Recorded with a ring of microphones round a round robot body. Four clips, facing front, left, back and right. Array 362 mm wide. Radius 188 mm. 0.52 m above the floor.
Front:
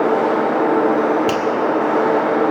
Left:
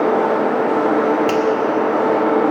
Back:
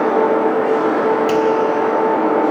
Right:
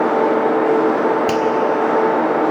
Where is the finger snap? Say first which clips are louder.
Even, back 4 dB; 30° right, 1.4 m.